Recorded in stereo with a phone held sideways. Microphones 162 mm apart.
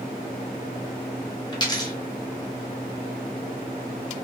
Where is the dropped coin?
25° left (ahead or behind), 0.7 m.